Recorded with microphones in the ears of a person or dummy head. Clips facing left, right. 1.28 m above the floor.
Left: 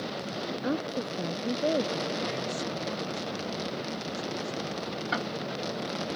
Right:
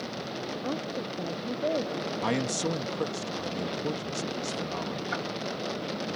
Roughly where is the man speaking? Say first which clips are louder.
Right 4 dB; right.